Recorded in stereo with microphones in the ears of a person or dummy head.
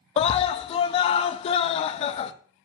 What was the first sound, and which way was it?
A scream, 30° left (ahead or behind).